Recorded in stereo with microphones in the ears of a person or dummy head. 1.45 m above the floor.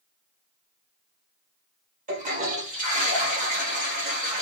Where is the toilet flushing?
40° right (ahead or behind), 1.7 m.